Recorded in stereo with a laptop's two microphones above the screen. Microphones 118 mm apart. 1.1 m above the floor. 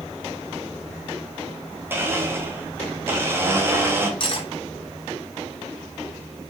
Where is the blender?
20° right (ahead or behind), 0.5 m.